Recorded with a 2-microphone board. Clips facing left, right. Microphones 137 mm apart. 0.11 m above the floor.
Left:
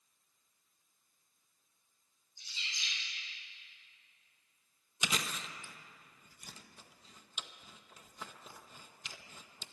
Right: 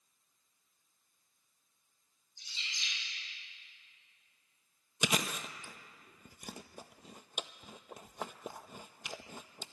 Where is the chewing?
60° right (ahead or behind), 0.6 m.